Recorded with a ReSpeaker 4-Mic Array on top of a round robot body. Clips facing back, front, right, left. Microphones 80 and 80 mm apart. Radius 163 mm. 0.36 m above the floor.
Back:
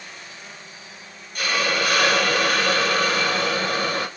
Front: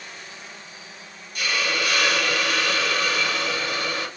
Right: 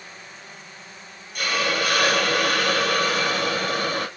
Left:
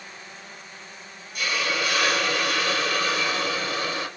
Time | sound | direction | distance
1.4 | a hiss | 130° right | 0.6 m